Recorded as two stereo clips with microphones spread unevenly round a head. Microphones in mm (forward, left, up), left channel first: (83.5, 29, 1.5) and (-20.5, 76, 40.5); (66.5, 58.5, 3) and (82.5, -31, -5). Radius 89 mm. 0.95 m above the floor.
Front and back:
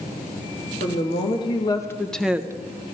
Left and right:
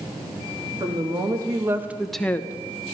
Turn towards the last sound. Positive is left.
turn(degrees=75)